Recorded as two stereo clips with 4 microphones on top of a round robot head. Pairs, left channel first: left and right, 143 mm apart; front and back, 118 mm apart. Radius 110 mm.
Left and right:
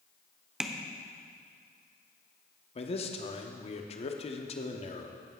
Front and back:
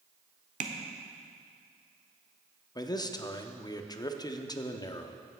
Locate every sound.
0.6 s tapping: 175° right, 1.1 m
2.8 s a man speaking: 50° left, 1.0 m